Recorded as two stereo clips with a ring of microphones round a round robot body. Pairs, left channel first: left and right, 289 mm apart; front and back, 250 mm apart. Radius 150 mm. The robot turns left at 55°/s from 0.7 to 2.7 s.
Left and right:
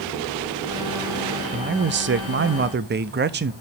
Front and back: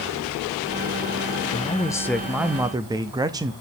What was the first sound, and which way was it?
A man speaking, 50° right.